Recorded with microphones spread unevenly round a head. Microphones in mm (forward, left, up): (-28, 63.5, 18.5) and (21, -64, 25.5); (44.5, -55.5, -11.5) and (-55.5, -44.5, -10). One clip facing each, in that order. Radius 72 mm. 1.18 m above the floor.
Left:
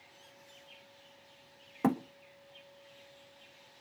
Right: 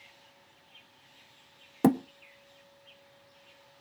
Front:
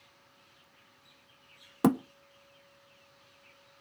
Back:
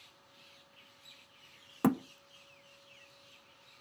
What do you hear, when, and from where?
1.8 s a thud: 55° right, 0.5 m